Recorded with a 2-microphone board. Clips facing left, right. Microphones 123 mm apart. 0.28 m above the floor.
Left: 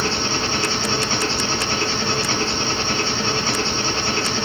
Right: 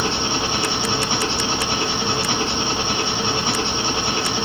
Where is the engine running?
15° right (ahead or behind), 1.2 m.